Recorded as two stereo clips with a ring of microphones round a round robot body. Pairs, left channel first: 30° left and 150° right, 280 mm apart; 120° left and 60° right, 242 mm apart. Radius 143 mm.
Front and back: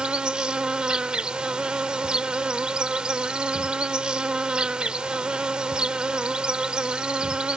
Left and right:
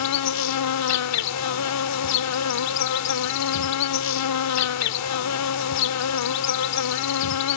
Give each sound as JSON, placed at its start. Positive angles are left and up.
{"t": 0.0, "sound": "an insect", "azimuth_deg": 125}